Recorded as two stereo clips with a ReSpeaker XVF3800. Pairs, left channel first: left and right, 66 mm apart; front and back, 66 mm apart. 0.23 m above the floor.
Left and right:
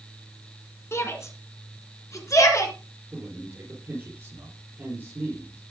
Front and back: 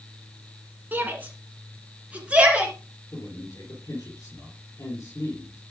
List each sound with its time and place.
0.9 s a shout: 125° left, 2.5 m; by 2.7 s 110° left, 3.5 m
3.1 s a man speaking: 40° right, 4.5 m